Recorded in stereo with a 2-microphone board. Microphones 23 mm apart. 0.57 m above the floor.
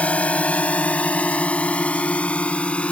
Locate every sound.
0.0 s a drone: 70° left (ahead or behind); by 2.9 s 60° left (ahead or behind)